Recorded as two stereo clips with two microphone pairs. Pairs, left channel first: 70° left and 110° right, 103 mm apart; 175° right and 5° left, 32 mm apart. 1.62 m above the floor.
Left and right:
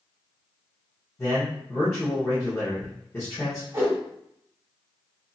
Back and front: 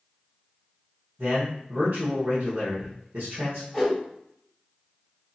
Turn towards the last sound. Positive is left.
turn(degrees=-75)